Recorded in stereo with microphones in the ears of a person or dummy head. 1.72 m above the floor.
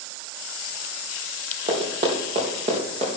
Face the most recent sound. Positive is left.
turn(degrees=-45)  # may be behind; listen again after turning